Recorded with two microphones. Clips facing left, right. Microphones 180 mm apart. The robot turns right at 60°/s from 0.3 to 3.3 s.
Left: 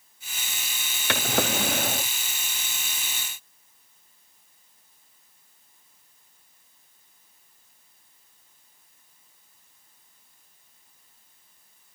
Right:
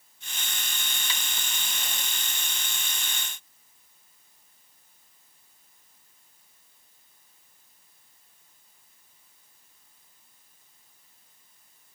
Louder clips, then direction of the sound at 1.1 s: Left 22 dB; 70° left.